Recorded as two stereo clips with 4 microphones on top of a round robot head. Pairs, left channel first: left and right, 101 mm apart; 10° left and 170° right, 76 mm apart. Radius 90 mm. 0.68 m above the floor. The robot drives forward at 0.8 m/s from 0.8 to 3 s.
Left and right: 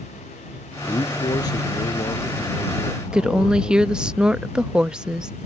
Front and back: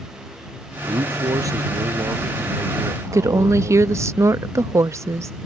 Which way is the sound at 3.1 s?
170° right.